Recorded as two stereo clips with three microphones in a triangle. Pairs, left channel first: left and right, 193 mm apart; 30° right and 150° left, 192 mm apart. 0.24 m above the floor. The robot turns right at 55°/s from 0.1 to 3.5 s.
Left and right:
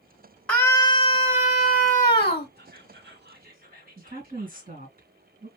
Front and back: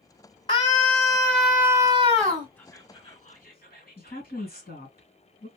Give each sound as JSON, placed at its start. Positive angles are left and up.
{"t": 0.5, "sound": "a scream", "azimuth_deg": 10, "distance_m": 1.2}
{"t": 2.6, "sound": "whispering", "azimuth_deg": -110, "distance_m": 2.5}
{"t": 4.0, "sound": "a woman speaking", "azimuth_deg": -55, "distance_m": 2.5}